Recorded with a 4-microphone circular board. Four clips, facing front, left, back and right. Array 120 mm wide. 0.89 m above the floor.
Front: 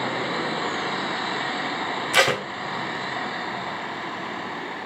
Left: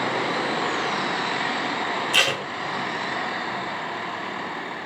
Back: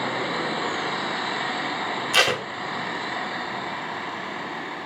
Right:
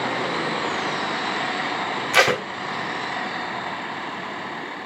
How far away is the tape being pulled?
About 0.5 m.